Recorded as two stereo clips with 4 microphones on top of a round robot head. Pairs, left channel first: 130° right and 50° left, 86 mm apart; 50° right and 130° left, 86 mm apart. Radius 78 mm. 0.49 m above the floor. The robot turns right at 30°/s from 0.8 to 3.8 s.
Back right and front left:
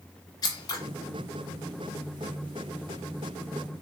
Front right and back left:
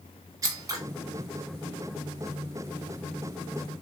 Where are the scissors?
175° right, 0.6 m.